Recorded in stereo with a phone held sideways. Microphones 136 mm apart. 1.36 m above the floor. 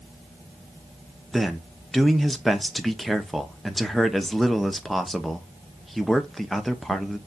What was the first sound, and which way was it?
A man speaking, centre (ahead or behind).